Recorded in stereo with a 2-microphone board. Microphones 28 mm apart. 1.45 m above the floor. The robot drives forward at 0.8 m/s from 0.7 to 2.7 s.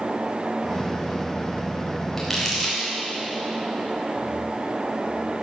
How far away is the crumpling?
About 4.5 m.